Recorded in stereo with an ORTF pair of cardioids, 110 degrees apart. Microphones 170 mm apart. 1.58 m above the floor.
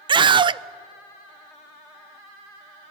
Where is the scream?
30° right, 0.8 m.